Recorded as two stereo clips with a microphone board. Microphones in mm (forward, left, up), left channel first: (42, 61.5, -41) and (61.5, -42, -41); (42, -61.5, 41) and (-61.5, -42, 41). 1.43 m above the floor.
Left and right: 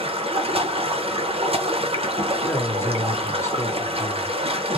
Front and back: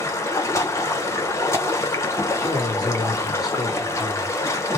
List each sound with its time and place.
0.0 s running water: 70° right, 0.7 m
2.4 s a man speaking: 35° left, 0.8 m